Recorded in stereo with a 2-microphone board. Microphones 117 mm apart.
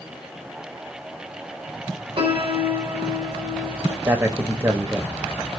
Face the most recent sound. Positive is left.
turn(degrees=-20)  # may be behind; listen again after turning